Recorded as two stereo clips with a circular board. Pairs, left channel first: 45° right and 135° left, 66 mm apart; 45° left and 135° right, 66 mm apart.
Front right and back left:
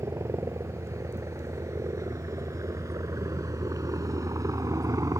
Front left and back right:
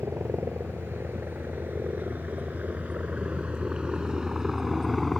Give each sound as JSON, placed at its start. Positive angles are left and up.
{"t": 0.0, "sound": "a helicopter", "azimuth_deg": 170}